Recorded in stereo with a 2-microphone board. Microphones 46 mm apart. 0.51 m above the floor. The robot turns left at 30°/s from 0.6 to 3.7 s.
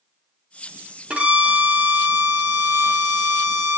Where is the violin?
35° right, 0.9 m; by 3.8 s 110° right, 0.9 m.